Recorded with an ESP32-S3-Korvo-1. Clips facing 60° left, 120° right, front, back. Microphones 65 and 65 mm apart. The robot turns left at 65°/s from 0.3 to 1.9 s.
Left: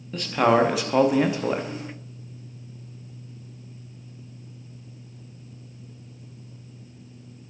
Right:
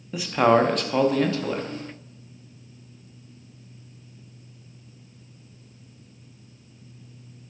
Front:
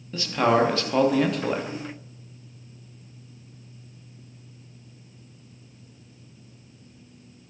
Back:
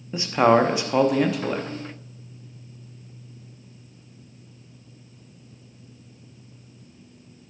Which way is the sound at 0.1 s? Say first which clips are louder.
Right 1 dB, back 3 dB; 170° left.